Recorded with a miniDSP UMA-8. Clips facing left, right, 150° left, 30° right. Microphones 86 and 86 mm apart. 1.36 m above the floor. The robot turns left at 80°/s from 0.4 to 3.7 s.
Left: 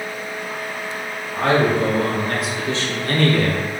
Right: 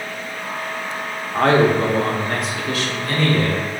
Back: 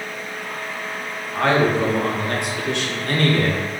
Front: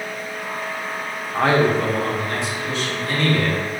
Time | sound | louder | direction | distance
1.3 | a man speaking | right 2 dB, even | 95° right | 1.0 m